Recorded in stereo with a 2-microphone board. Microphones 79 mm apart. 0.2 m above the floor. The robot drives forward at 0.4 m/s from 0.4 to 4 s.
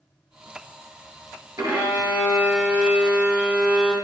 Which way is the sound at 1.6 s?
35° right (ahead or behind).